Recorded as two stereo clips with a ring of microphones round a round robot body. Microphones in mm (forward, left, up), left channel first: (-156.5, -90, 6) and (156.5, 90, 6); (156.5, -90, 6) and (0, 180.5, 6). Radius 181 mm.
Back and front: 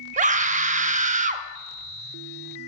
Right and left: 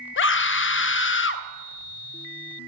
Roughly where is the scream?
Ahead right.